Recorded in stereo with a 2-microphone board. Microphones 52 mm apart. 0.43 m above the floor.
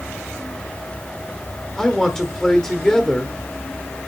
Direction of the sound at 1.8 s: 10° left (ahead or behind).